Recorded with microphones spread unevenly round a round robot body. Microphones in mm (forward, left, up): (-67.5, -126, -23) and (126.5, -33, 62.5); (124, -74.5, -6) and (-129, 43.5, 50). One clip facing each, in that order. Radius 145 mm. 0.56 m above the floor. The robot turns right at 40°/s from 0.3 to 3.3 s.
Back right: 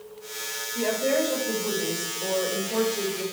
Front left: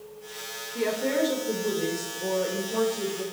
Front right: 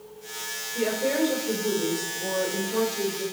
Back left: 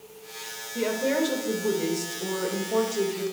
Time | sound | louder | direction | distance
0.8 | a woman speaking | back right 1 dB, even | 65° left | 2.5 m